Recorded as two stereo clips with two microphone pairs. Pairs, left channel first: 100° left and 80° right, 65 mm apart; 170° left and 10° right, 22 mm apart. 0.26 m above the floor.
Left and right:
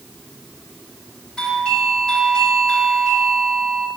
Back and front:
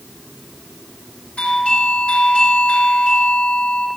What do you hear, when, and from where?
1.4 s a doorbell: 170° left, 5 m